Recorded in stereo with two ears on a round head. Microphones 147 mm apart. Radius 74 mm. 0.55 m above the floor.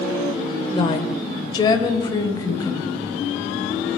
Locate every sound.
0.8 s a woman speaking: 30° left (ahead or behind), 2 m; by 2.9 s 20° left (ahead or behind), 3.5 m